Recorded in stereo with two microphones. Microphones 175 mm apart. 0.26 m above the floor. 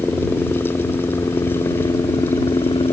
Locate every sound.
0.0 s a helicopter: 10° left (ahead or behind); by 2.9 s 30° left (ahead or behind)